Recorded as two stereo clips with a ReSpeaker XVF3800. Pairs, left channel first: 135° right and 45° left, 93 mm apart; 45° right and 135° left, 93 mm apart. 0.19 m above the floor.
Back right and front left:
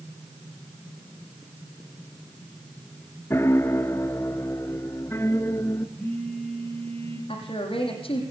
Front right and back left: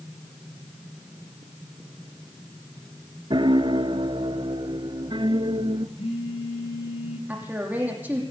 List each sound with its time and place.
3.3 s a piano: 165° left, 0.8 m
6.0 s a phone buzzing: 55° right, 8 m
7.3 s a woman speaking: 155° right, 6.5 m